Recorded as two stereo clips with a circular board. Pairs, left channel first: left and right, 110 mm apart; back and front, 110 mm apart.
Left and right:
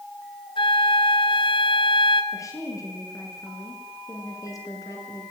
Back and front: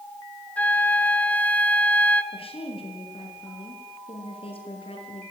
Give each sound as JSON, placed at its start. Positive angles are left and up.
{"t": 0.6, "sound": "a flute", "azimuth_deg": 105, "distance_m": 2.0}
{"t": 2.3, "sound": "a woman speaking", "azimuth_deg": 150, "distance_m": 7.5}